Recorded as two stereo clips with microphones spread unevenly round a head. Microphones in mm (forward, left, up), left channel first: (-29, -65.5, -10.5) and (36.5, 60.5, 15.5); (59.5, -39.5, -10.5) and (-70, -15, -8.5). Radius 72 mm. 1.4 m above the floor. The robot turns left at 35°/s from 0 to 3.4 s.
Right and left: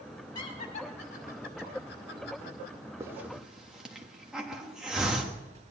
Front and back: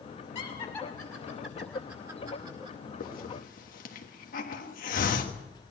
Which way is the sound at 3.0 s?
5° right.